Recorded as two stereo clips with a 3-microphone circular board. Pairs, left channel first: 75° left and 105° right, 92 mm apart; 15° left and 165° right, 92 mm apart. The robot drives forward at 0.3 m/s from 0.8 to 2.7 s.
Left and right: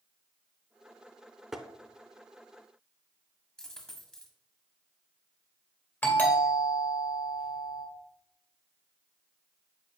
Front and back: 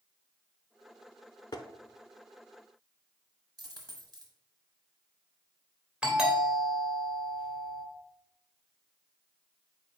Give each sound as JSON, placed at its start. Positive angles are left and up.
{"t": 1.5, "sound": "tapping", "azimuth_deg": -20, "distance_m": 0.6}
{"t": 3.6, "sound": "a dropped coin", "azimuth_deg": 155, "distance_m": 1.2}
{"t": 6.0, "sound": "a doorbell", "azimuth_deg": 125, "distance_m": 1.7}